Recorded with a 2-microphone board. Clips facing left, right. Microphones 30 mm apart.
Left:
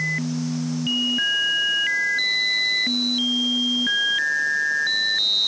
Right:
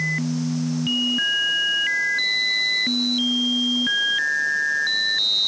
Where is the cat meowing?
I don't hear a cat meowing.